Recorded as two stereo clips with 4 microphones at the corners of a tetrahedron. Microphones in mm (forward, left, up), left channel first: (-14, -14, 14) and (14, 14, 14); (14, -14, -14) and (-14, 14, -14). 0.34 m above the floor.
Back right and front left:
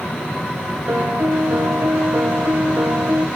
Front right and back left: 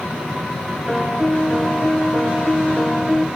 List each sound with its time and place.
0.9 s a piano: 35° left, 1.6 m